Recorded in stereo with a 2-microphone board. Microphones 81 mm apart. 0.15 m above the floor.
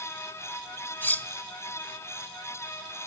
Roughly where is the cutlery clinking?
Left.